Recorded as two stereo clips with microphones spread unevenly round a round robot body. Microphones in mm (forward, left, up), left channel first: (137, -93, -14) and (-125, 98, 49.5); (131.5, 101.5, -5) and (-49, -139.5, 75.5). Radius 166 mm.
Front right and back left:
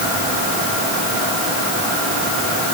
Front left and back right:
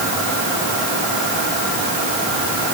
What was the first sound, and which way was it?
Only background noise.